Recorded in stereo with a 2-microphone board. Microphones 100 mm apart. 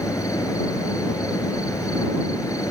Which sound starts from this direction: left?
An insect, at 0.0 s.